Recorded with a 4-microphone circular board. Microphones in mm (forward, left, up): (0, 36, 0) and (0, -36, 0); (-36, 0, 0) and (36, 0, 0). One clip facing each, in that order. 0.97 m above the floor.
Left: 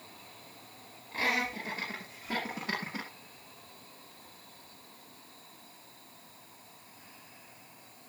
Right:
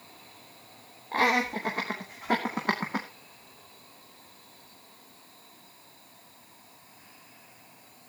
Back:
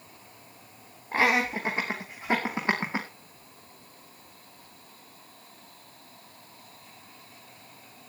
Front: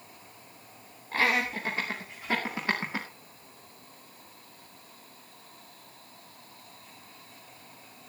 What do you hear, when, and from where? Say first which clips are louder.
1.1 s laughter: right 7 dB, back 3 dB; 115° right, 3 m